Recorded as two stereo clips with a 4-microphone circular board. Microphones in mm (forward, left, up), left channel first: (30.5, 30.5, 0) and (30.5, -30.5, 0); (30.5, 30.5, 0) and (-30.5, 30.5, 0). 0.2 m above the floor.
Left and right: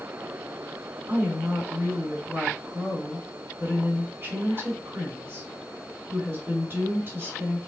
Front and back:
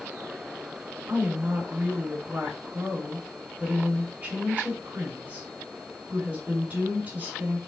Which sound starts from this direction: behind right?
A woman speaking, at 1.1 s.